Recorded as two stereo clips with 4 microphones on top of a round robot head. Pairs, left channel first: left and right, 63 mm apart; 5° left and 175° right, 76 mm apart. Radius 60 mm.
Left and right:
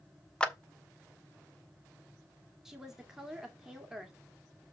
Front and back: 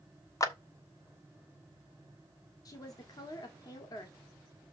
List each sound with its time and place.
0.4 s a clap: 20° left, 1.3 m
2.6 s a woman speaking: 10° right, 1.8 m